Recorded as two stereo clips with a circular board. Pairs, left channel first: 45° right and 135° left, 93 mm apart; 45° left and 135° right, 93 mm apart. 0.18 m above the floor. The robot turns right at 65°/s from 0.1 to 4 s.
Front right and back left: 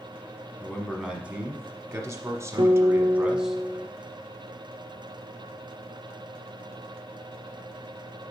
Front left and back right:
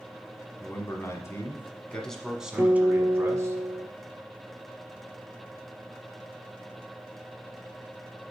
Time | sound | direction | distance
0.6 | a man speaking | 30° left | 1.2 m
2.6 | a guitar | 155° left | 1.0 m